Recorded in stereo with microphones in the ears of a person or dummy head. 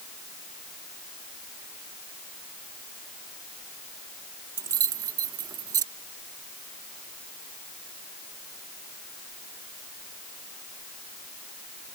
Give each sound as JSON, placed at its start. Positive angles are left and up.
{"t": 4.6, "sound": "keys jangling", "side_deg": -25}